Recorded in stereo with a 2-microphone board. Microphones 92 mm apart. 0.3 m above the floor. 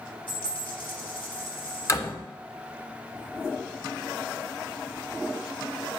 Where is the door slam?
40° left (ahead or behind), 0.8 m.